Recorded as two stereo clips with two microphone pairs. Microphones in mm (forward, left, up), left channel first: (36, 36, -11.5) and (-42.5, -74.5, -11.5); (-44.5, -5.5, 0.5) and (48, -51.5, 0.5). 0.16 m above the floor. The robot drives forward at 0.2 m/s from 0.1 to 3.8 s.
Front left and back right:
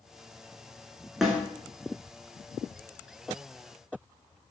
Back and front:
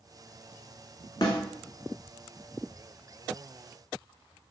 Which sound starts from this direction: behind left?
A snare drum, at 1.2 s.